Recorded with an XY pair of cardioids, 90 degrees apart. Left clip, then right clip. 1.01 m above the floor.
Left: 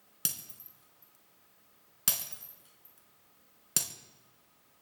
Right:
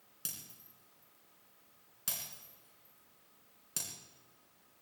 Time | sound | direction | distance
0.2 | breaking glass | 70° left | 3 m